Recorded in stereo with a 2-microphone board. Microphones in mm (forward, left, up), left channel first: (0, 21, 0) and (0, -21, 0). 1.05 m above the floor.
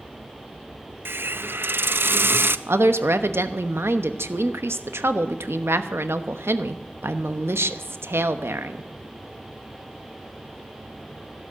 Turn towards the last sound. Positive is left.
turn(degrees=-80)